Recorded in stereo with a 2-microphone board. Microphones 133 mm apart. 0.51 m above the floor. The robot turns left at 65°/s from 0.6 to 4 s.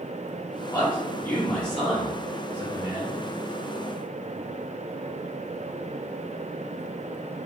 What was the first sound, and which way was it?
A man speaking, 25° left (ahead or behind).